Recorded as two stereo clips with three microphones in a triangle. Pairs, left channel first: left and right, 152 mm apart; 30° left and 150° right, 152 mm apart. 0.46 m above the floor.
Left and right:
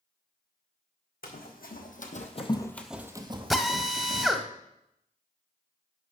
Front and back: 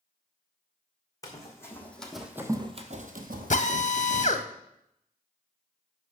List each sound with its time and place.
1.2 s running footsteps: 95° left, 1.8 m; by 4.3 s 125° right, 2.0 m
3.5 s a drill: straight ahead, 0.6 m